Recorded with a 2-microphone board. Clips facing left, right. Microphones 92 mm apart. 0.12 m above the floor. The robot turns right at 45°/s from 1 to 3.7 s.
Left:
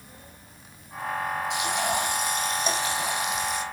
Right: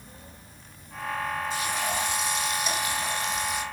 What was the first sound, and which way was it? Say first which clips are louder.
Frying: left 3 dB; 90° left.